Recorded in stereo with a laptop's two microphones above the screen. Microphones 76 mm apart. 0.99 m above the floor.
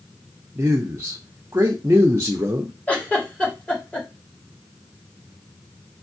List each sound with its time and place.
0.6 s a man speaking: 30° right (ahead or behind), 0.7 m
2.9 s a giggle: 15° left (ahead or behind), 2 m